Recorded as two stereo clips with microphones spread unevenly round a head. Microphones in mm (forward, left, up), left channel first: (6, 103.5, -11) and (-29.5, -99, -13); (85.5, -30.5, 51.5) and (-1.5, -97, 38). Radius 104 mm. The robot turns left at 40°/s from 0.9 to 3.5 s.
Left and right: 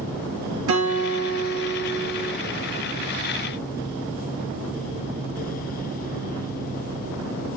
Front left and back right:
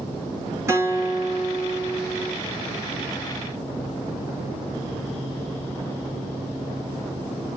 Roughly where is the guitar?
Right.